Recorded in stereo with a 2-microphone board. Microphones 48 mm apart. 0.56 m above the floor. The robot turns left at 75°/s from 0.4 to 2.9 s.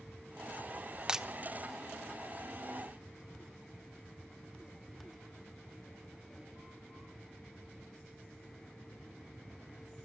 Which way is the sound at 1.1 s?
15° right (ahead or behind).